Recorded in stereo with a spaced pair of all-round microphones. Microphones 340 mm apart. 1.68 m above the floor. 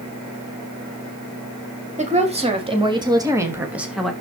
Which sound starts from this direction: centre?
A woman speaking, at 2.0 s.